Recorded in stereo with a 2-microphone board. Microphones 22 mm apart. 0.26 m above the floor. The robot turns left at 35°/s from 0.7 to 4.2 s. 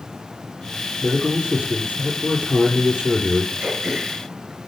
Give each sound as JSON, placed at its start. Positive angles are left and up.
{"t": 1.0, "sound": "a man speaking", "azimuth_deg": -50, "distance_m": 4.5}
{"t": 3.6, "sound": "throat clearing", "side_deg": -25, "distance_m": 3.5}